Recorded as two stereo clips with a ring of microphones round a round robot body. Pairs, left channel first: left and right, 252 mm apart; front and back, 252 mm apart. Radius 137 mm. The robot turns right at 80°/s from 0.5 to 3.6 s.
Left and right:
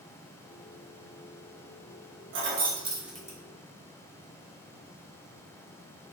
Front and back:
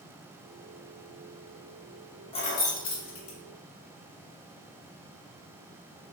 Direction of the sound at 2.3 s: 65° right.